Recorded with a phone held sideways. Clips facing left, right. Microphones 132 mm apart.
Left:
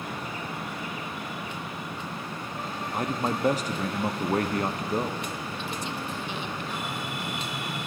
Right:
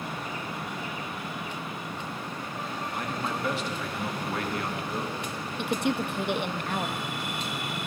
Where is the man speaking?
40° left (ahead or behind), 0.6 m.